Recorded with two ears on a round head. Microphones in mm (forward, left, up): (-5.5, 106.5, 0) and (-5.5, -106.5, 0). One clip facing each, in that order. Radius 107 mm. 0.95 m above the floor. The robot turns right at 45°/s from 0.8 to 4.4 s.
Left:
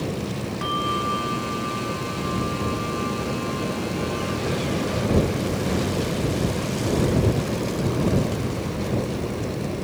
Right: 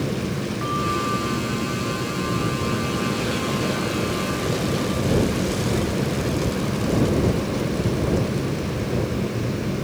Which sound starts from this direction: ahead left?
A bell, at 0.6 s.